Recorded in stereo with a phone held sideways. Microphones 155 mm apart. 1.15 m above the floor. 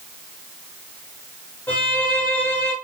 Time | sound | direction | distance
1.7 | a violin | 10° left (ahead or behind) | 0.9 m